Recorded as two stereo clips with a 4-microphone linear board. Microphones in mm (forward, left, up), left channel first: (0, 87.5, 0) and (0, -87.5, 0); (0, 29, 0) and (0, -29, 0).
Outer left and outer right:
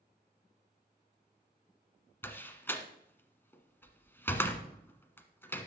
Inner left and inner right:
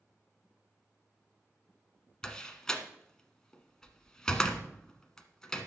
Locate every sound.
2.2 s a door slam: 10° left (ahead or behind), 1.2 m